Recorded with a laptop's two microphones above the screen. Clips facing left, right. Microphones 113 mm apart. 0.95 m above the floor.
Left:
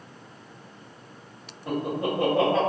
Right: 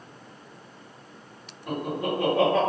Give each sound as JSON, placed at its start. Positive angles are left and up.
{"t": 1.7, "sound": "laughter", "side_deg": 30, "distance_m": 1.0}